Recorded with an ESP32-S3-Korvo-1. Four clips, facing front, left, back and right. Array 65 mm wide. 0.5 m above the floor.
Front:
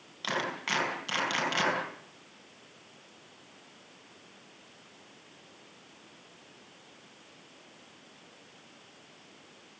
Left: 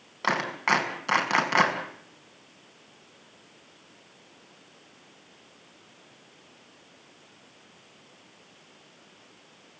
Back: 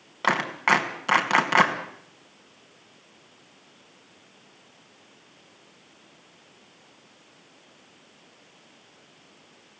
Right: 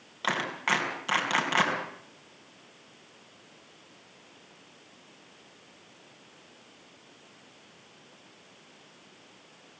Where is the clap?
165° left, 3.5 m.